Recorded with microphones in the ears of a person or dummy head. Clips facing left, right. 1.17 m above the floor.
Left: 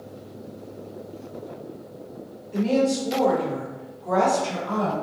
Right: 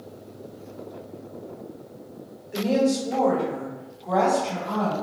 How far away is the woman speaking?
About 0.8 m.